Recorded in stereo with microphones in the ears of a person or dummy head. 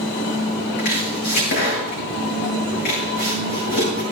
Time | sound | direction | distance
0.8 | chopping | 50° left (ahead or behind) | 6.5 m